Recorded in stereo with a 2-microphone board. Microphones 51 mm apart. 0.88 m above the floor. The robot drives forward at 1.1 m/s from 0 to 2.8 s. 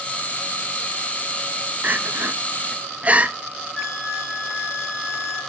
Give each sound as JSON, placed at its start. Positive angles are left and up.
{"t": 1.8, "sound": "crying", "side_deg": -35, "distance_m": 0.8}
{"t": 3.8, "sound": "a flute", "side_deg": 10, "distance_m": 7.5}